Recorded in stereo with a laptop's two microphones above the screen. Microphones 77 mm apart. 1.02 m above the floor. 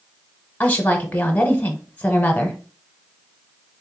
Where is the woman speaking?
25° left (ahead or behind), 0.8 m.